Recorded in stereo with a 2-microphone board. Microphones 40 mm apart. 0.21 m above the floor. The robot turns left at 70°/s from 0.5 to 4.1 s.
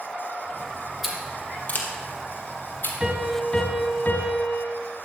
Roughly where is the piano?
Behind.